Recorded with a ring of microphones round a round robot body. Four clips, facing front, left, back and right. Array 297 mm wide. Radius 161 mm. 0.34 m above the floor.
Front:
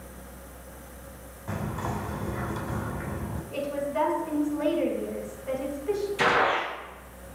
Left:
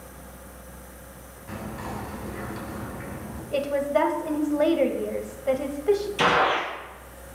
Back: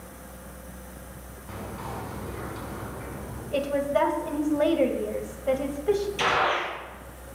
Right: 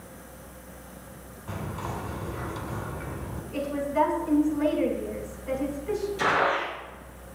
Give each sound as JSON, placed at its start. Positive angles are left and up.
{"t": 1.5, "sound": "whispering", "azimuth_deg": -20, "distance_m": 2.5}
{"t": 3.5, "sound": "a woman speaking", "azimuth_deg": 125, "distance_m": 2.5}
{"t": 6.2, "sound": "a gunshot", "azimuth_deg": 70, "distance_m": 4.0}